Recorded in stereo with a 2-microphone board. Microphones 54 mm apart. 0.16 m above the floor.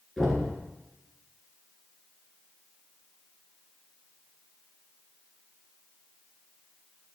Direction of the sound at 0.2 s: Centre (ahead or behind).